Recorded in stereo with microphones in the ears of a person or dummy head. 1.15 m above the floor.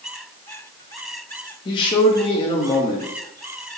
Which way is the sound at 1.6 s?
25° left (ahead or behind).